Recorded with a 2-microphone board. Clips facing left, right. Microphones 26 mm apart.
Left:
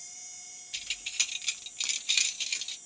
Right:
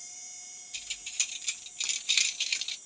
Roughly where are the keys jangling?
Left.